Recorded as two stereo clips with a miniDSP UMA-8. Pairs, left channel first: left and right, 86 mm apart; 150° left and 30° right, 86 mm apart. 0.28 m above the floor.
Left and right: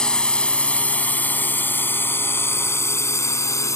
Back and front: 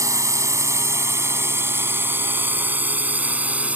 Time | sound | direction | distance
0.0 | a drone | 10° left | ?